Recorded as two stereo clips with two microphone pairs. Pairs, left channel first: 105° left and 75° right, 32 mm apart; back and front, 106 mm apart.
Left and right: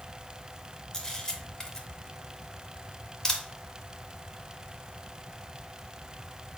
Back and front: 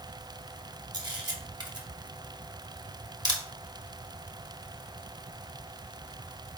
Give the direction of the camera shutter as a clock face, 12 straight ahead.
11 o'clock.